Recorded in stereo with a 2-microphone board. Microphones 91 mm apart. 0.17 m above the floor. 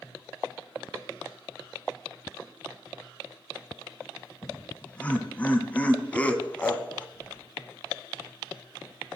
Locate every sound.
4.4 s laughter: 15° left (ahead or behind), 1.1 m
7.1 s keys jangling: 60° left (ahead or behind), 4 m